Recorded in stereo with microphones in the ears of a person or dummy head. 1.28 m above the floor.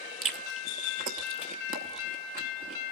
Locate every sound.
0.2 s chewing: 45° right (ahead or behind), 1.0 m